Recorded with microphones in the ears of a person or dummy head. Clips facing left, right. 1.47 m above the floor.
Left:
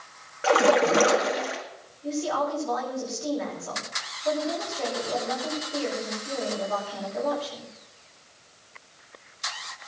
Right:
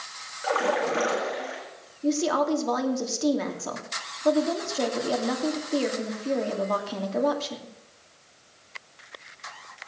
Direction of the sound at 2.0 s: 70° right (ahead or behind).